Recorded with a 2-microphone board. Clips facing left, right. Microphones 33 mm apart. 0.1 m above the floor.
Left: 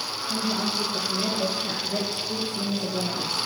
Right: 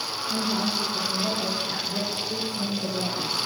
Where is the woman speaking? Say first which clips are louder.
Even; 25° left (ahead or behind), 2 m; by 3.4 s 40° left (ahead or behind), 3 m.